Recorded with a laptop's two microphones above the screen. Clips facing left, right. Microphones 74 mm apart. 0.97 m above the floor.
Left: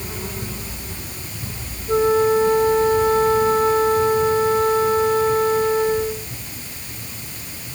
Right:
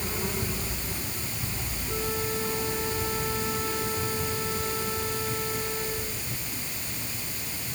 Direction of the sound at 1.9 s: 50° left (ahead or behind).